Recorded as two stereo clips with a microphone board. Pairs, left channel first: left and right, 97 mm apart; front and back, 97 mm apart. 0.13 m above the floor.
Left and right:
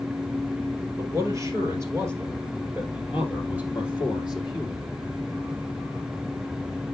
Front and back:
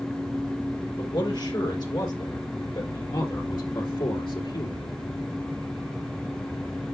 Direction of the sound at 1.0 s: 40° right.